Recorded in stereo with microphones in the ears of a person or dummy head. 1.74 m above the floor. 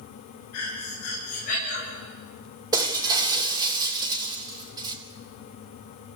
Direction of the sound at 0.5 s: 50° left (ahead or behind).